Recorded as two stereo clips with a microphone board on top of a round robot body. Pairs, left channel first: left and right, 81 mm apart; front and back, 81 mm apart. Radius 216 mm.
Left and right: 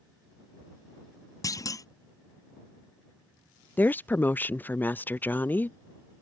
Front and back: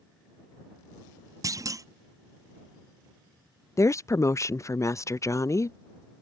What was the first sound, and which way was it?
A clunk, 135° left.